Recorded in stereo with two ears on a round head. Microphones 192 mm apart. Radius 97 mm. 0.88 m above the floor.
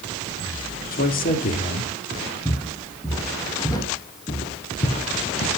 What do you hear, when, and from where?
0.9 s a man speaking: 40° left (ahead or behind), 1.7 m; by 1.9 s 45° left (ahead or behind), 2 m
2.5 s footsteps: 5° left (ahead or behind), 3.5 m; by 5.5 s 45° left (ahead or behind), 1.6 m